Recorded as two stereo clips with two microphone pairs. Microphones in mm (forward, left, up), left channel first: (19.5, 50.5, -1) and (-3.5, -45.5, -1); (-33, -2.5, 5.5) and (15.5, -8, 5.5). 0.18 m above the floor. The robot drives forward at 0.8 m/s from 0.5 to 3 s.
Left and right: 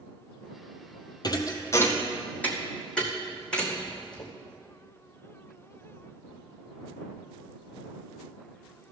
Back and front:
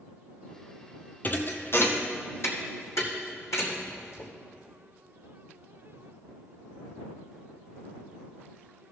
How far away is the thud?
About 1.0 m.